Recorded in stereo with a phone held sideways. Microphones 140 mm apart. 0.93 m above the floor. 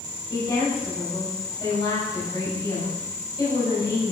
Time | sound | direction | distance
0.3 | a woman speaking | 30° left (ahead or behind) | 6 m